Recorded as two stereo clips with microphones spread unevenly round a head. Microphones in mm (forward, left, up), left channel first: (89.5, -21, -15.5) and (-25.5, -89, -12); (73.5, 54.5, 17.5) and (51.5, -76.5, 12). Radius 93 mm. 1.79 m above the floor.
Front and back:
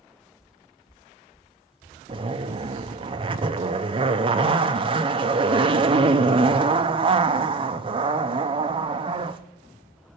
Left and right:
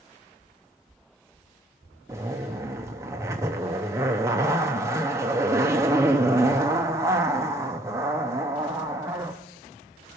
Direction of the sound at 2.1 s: 170° right.